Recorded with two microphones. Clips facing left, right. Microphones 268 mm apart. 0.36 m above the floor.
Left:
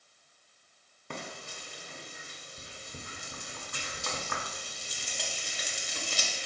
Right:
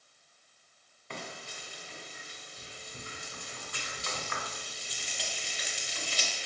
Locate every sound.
1.1 s frying: 50° left (ahead or behind), 0.5 m